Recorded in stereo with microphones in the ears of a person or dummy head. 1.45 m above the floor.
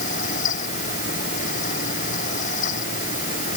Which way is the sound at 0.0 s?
50° left (ahead or behind).